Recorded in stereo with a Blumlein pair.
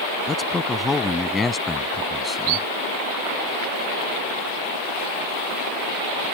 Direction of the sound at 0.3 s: 15° left.